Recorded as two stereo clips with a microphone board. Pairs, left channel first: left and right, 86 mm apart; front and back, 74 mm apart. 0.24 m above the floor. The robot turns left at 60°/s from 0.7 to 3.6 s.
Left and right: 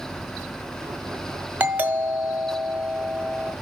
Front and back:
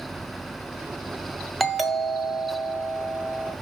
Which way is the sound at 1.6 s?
85° right.